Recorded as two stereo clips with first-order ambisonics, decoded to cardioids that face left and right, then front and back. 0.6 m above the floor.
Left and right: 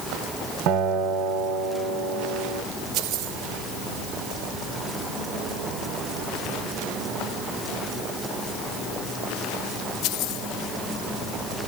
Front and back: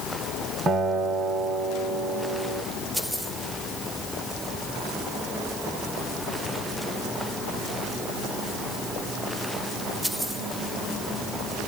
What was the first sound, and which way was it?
A guitar, 115° right.